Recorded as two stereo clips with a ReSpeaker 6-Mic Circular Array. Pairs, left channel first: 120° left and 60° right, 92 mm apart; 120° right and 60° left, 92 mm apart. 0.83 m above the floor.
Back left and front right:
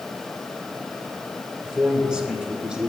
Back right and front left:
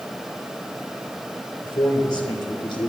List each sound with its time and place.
1.6 s a man speaking: 140° right, 2.5 m